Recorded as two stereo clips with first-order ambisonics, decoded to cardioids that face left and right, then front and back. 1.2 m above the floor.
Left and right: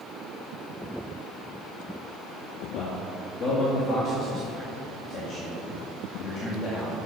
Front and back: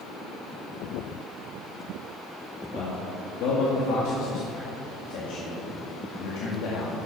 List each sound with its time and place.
2.7 s a man speaking: 30° left, 2.0 m